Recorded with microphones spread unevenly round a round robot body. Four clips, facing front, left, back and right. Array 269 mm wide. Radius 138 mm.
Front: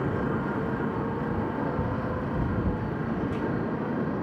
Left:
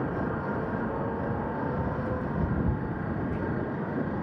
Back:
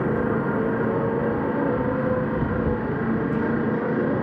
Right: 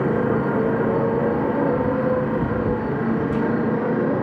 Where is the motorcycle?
115° right; by 4.2 s 120° right.